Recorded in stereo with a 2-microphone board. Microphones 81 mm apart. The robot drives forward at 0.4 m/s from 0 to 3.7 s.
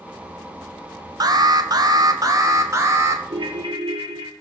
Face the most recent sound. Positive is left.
turn(degrees=-75)  # may be behind; listen again after turning